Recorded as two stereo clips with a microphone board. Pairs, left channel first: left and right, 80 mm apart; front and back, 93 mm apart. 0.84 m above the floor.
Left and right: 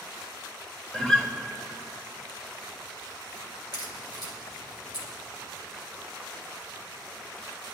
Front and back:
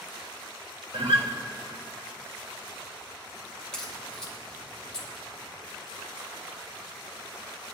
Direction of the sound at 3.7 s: 80° left.